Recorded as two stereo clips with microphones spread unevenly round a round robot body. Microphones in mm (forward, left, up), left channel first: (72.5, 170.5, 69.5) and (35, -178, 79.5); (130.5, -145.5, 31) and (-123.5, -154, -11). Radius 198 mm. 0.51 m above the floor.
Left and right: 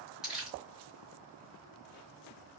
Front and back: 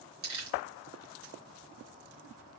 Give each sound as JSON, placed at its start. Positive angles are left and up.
{"t": 0.2, "sound": "crumpling", "azimuth_deg": 175, "distance_m": 3.5}